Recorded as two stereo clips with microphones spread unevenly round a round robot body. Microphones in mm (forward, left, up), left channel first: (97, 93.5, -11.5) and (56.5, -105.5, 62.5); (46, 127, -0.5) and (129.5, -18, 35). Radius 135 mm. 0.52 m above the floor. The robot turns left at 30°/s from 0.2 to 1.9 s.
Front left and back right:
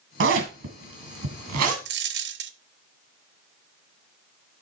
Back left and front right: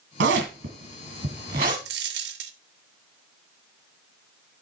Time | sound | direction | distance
0.2 | a zipper | 85° right | 1.8 m
1.9 | a dropped coin | 75° right | 0.7 m